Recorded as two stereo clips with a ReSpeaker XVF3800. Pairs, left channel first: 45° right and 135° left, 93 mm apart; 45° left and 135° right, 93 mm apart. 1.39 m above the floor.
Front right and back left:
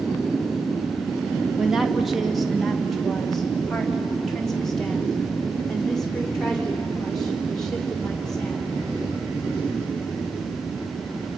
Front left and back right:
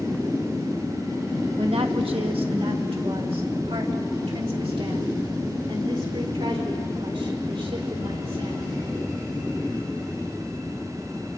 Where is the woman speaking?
140° right, 1.8 m; by 8.8 s 130° right, 6 m.